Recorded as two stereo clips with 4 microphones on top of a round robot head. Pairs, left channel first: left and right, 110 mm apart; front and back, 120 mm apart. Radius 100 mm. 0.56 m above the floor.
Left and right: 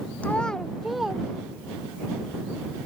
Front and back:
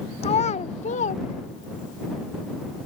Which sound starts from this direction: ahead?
A child speaking, at 0.2 s.